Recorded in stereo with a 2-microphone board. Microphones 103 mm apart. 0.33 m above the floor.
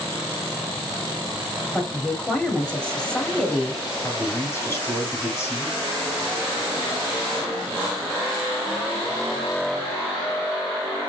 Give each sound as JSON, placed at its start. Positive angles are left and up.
{"t": 1.7, "sound": "a woman speaking", "side_deg": 10, "distance_m": 1.3}
{"t": 4.0, "sound": "a man speaking", "side_deg": 25, "distance_m": 2.0}